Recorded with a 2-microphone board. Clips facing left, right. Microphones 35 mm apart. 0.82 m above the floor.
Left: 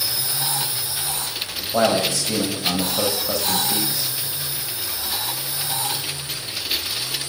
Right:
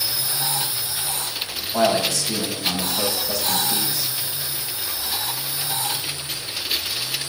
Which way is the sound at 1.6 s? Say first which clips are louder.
Left 1 dB; 35° left (ahead or behind).